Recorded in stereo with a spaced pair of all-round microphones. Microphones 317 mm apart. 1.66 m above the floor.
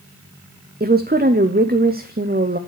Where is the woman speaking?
30° right (ahead or behind), 0.6 m.